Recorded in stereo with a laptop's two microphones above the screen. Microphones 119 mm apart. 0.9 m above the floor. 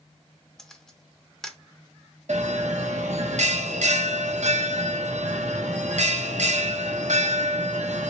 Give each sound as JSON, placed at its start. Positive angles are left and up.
{"t": 0.6, "sound": "a camera shutter", "side_deg": 5, "distance_m": 0.8}
{"t": 2.3, "sound": "a bell", "side_deg": -75, "distance_m": 0.7}